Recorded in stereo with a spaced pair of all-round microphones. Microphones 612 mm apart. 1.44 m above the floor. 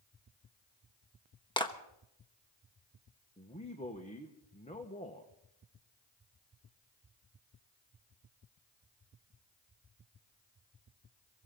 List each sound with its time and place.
1.6 s a clap: 5° left (ahead or behind), 1.1 m
3.4 s a man speaking: 10° left (ahead or behind), 1.3 m